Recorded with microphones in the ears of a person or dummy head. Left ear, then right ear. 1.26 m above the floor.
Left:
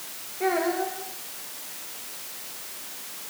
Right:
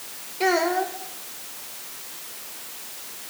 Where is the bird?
No bird in this recording.